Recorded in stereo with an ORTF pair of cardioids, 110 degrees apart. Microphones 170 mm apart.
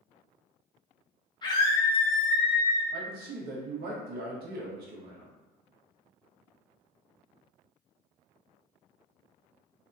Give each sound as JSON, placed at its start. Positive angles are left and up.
{"t": 1.4, "sound": "a scream", "azimuth_deg": 25, "distance_m": 1.0}
{"t": 2.9, "sound": "a man speaking", "azimuth_deg": -65, "distance_m": 1.0}